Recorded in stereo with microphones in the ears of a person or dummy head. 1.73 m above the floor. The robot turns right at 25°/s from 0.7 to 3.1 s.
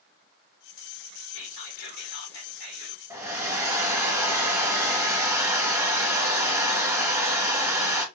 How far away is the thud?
I don't hear a thud.